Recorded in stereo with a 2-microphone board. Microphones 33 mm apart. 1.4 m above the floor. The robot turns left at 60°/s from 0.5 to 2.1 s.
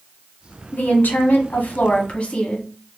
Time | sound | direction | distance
0.7 | a woman speaking | 120° left | 1.1 m